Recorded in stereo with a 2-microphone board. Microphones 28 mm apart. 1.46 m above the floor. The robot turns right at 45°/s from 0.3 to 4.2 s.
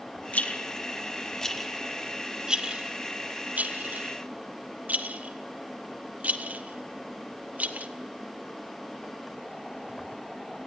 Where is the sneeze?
No sneeze in this recording.